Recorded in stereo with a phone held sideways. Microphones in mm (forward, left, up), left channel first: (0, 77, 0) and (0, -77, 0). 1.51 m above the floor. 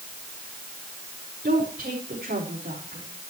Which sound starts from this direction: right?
A woman speaking, at 1.4 s.